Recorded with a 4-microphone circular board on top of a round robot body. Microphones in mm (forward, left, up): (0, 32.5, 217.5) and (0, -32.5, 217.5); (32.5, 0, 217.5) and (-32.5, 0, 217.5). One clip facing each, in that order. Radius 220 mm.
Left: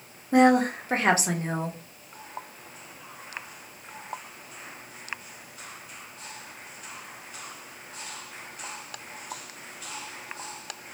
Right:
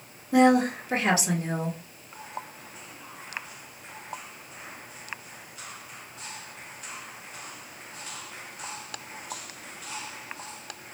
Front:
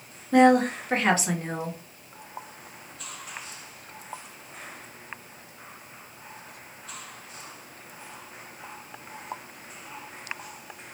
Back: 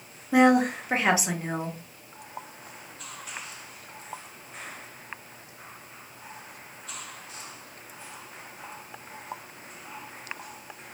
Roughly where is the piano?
No piano in this recording.